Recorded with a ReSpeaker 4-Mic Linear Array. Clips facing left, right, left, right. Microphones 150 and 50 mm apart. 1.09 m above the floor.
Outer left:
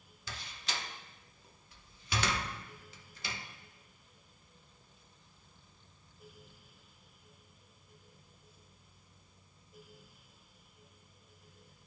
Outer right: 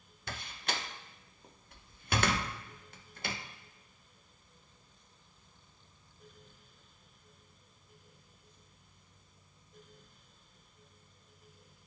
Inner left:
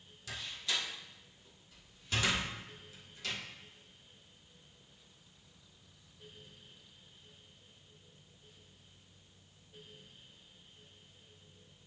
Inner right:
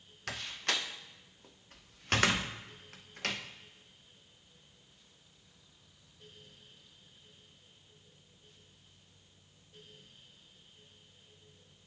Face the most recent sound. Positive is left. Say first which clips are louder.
# outer right 4 dB, inner right 3 dB
turn(degrees=-55)  # may be behind; listen again after turning